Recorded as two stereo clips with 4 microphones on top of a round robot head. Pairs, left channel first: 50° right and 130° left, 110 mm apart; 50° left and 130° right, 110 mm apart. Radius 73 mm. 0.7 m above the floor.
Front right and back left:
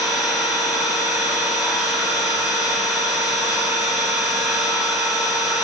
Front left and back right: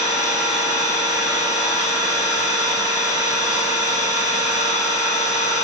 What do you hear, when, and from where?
0.0 s an engine running: 50° left, 2 m